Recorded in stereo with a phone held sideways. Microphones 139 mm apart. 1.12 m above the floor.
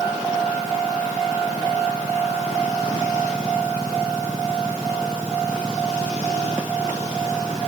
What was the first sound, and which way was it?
Only background noise.